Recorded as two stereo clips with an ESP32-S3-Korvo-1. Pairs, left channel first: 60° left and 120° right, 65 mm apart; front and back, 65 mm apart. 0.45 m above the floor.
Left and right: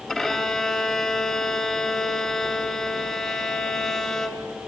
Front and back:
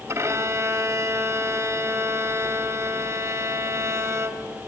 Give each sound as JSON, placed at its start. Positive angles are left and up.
{"t": 0.1, "sound": "a violin", "azimuth_deg": 140, "distance_m": 2.5}